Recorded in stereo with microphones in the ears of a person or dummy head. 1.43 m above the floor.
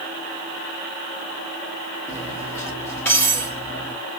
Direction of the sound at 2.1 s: 10° left (ahead or behind).